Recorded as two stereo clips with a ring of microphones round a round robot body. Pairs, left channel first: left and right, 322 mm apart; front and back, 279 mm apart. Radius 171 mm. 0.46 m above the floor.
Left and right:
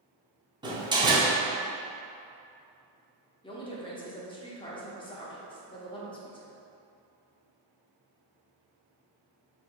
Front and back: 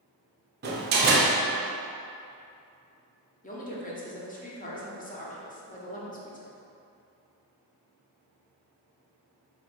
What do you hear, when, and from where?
0.6 s a door slam: 160° right, 0.7 m
3.4 s a woman speaking: 30° left, 0.9 m